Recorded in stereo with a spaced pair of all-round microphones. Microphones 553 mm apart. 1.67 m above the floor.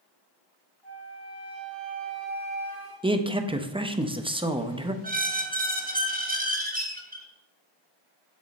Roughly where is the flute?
Right.